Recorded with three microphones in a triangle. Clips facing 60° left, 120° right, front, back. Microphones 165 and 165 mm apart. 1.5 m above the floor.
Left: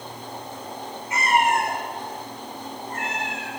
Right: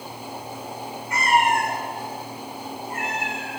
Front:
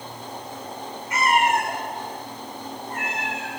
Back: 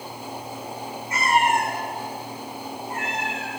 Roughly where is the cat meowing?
Behind left.